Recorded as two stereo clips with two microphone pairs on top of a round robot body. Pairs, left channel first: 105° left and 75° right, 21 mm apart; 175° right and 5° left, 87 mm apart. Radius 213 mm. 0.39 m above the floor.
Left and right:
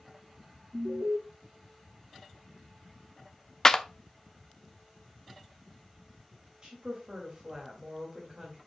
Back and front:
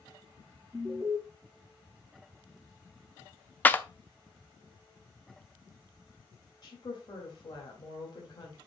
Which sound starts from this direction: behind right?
A woman speaking, at 6.6 s.